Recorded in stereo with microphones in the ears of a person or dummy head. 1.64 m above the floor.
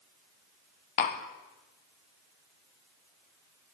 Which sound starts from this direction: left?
Tapping, at 1.0 s.